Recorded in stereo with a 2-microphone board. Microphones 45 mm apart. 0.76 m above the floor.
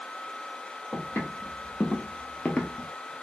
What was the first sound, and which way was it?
Footsteps, 45° left (ahead or behind).